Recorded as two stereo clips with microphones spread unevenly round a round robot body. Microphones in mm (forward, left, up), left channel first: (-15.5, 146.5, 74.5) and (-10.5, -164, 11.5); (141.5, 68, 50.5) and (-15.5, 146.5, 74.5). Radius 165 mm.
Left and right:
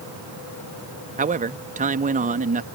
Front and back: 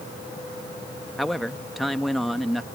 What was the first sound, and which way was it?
A man speaking, 105° right.